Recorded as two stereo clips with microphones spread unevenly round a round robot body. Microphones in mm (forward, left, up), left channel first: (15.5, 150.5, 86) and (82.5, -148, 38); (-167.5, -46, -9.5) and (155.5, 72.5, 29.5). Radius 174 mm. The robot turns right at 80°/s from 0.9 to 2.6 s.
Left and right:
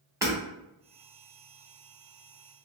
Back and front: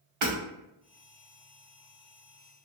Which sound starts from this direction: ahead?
Hammering, at 0.2 s.